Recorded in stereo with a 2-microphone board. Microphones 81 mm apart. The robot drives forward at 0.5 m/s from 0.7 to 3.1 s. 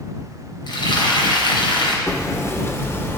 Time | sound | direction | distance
0.7 | frying | 65° left (ahead or behind) | 3.5 m
2.1 | hammering | 40° left (ahead or behind) | 1.4 m